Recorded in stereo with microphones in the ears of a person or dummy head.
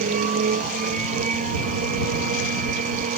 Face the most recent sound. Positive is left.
turn(degrees=-35)  # may be behind; listen again after turning